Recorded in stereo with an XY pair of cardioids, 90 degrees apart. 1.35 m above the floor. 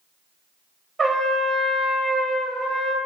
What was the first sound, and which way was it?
A trumpet, 35° right.